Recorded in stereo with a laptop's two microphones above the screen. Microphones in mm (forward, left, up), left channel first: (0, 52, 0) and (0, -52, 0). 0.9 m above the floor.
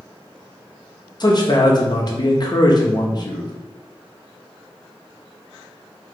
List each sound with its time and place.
1.2 s a man speaking: 40° left (ahead or behind), 0.9 m